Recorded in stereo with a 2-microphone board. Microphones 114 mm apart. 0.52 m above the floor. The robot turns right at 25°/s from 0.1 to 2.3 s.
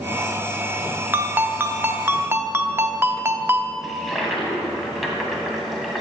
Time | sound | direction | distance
1.1 | a ringtone | 15° right (ahead or behind) | 0.5 m
3.8 | a toilet flushing | centre (ahead or behind) | 1.5 m